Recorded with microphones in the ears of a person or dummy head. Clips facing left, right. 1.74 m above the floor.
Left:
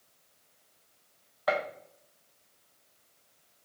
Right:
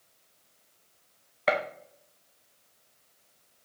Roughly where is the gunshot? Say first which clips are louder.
Right 2 dB; right.